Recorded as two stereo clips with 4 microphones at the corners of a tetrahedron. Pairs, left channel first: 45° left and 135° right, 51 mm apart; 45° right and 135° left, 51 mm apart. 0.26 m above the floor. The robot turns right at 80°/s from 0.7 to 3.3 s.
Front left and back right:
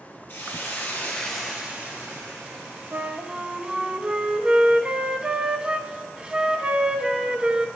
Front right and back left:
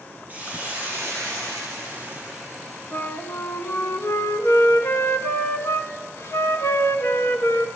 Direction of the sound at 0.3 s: 80° left.